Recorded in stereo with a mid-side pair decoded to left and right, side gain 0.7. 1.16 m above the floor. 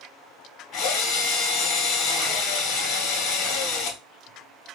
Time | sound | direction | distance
0.7 | a drill | 55° left | 3 m